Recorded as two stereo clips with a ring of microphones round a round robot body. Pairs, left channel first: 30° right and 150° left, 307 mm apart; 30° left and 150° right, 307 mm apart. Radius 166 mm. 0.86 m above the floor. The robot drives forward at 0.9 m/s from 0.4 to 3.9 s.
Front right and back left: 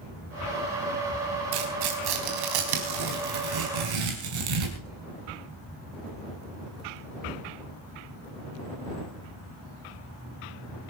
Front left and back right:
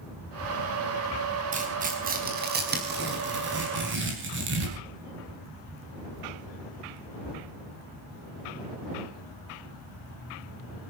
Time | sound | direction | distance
1.5 | tearing paper | 140° left | 4 m